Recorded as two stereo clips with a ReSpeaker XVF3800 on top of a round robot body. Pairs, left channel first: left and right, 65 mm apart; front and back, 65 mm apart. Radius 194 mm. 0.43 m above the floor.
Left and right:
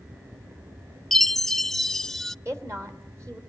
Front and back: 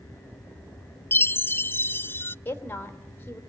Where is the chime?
5° left, 0.6 m.